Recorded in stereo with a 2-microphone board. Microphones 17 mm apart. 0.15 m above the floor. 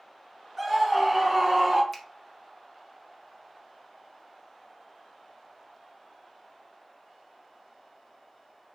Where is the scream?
5° right (ahead or behind), 2.5 m; by 1.8 s 25° right (ahead or behind), 3 m.